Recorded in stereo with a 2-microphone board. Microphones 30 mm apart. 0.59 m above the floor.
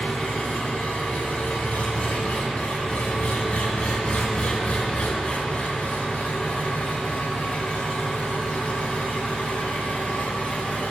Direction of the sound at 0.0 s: 60° left (ahead or behind).